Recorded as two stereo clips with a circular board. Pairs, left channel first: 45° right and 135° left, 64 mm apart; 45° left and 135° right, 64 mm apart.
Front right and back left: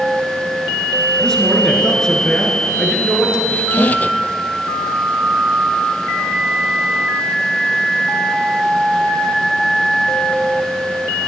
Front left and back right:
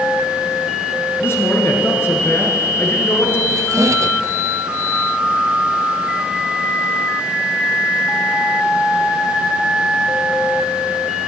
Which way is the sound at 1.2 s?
30° left.